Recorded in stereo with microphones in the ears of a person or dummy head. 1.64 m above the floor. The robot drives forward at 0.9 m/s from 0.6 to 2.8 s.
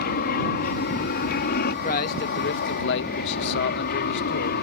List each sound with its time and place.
0.0 s an aircraft: 45° left (ahead or behind)
1.7 s a man speaking: 45° left (ahead or behind); by 4.6 s 65° left (ahead or behind)